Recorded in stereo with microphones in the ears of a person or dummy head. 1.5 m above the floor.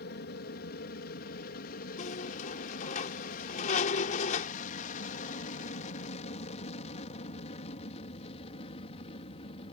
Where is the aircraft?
60° left (ahead or behind); by 9.7 s 35° left (ahead or behind).